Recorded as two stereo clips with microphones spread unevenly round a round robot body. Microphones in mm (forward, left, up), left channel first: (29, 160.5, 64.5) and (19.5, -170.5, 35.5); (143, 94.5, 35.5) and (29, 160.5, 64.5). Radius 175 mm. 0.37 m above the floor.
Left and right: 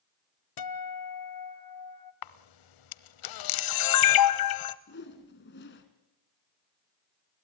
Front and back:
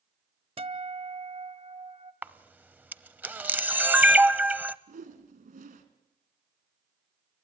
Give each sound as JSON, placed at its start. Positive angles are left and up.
{"t": 0.6, "sound": "a guitar", "azimuth_deg": 100, "distance_m": 1.3}
{"t": 2.2, "sound": "a camera shutter", "azimuth_deg": 70, "distance_m": 1.0}
{"t": 4.9, "sound": "a whoosh", "azimuth_deg": 145, "distance_m": 2.5}